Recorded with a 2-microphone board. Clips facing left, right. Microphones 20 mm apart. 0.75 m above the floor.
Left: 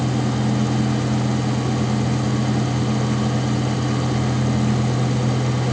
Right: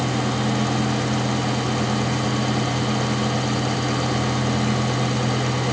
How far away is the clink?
I don't hear a clink.